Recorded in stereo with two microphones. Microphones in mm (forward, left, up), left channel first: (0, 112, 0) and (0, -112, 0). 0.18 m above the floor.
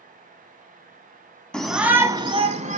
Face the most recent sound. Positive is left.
turn(degrees=-35)  # may be behind; listen again after turning